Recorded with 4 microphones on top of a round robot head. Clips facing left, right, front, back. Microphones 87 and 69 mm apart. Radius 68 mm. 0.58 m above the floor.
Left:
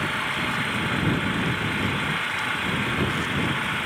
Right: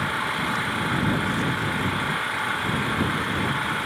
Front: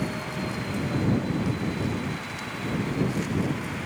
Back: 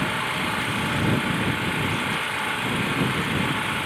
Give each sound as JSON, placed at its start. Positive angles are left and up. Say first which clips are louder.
{"t": 0.0, "sound": "an engine running", "louder": "right 1 dB, back 5 dB", "azimuth_deg": -165}